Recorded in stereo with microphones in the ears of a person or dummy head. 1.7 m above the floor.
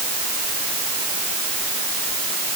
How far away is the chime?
No chime in this recording.